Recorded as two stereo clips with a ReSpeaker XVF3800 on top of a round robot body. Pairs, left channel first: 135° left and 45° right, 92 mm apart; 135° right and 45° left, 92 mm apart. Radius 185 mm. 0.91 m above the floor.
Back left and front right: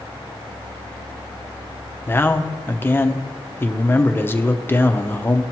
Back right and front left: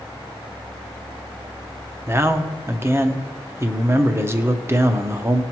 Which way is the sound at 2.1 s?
85° left.